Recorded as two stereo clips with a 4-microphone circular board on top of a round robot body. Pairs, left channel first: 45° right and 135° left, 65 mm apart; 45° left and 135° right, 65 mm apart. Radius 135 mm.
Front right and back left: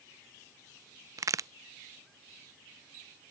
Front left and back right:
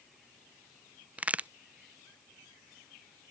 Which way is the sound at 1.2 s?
160° left.